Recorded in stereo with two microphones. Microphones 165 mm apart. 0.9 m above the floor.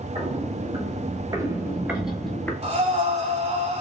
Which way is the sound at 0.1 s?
35° right (ahead or behind).